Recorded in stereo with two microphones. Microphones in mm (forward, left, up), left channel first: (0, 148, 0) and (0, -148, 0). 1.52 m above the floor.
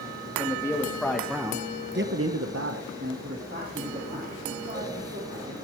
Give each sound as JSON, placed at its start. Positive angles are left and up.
{"t": 0.4, "sound": "a man speaking", "side_deg": 10, "distance_m": 1.9}